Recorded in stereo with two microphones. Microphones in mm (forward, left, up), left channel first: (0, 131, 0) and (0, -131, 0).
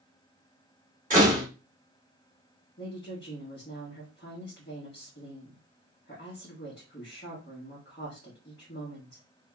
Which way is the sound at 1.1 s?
30° right (ahead or behind).